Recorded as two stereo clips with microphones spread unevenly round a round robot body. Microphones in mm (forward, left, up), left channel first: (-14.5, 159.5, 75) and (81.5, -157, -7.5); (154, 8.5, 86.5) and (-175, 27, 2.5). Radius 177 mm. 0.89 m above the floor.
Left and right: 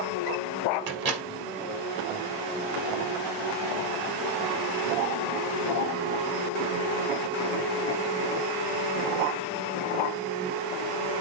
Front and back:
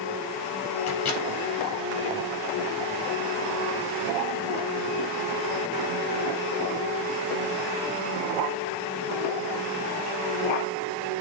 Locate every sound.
0.9 s a microwave: 50° right, 2.0 m